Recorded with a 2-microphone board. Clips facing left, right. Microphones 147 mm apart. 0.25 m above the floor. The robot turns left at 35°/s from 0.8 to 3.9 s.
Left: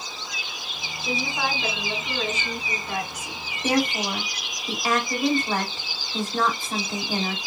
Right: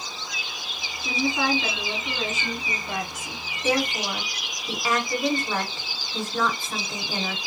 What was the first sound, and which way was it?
A woman speaking, 35° left.